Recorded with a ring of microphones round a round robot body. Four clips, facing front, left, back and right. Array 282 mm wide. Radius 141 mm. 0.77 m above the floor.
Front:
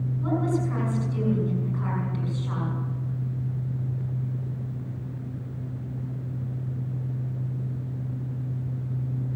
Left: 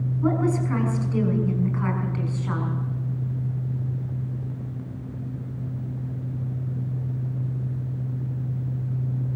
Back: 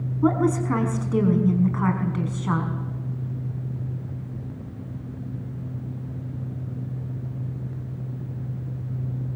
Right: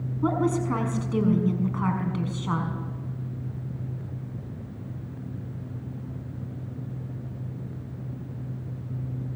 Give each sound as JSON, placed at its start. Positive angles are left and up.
{"t": 0.2, "sound": "a woman speaking", "azimuth_deg": -165, "distance_m": 6.0}